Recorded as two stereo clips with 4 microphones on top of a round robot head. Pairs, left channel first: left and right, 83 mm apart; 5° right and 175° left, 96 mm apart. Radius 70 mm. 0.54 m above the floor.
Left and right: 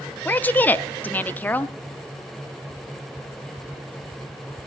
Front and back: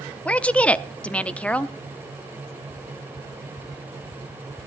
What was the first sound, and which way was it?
A woman speaking, 55° left.